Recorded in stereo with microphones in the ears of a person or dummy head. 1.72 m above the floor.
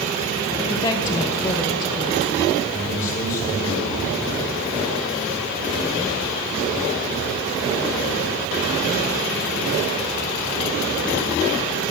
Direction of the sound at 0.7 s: 20° left (ahead or behind).